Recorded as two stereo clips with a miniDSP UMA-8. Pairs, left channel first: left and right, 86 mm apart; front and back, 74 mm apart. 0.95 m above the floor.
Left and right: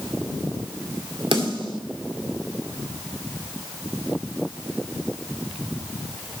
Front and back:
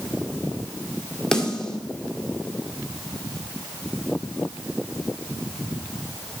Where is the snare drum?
80° right, 2.0 m.